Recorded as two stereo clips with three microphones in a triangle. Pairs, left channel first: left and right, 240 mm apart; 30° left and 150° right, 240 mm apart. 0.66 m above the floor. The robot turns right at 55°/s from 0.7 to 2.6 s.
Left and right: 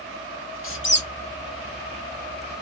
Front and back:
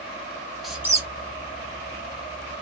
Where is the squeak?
120° left, 0.7 m; by 1.1 s 140° left, 0.7 m.